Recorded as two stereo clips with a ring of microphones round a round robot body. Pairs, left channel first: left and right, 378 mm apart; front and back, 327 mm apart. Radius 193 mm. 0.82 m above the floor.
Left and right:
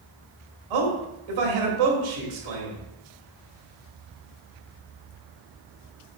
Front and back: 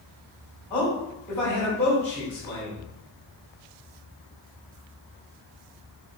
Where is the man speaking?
85° right, 2.5 m.